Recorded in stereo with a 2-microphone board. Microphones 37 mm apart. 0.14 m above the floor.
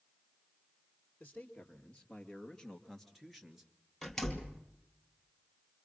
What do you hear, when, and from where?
1.2 s a man speaking: 35° left (ahead or behind), 3 m; by 3.7 s 15° right (ahead or behind), 2.0 m
4.0 s a door slam: 5° left (ahead or behind), 2.5 m